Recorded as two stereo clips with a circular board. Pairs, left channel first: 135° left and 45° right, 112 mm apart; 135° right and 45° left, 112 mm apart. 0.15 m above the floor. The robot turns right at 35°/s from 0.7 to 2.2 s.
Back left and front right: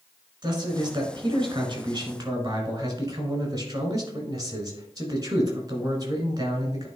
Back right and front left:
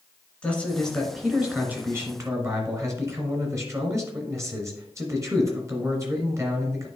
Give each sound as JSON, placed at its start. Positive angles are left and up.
{"t": 0.4, "sound": "a man speaking", "azimuth_deg": -60, "distance_m": 1.9}